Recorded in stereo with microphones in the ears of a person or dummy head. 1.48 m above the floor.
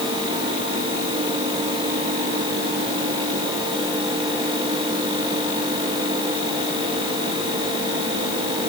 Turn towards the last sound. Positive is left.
No sound to turn to.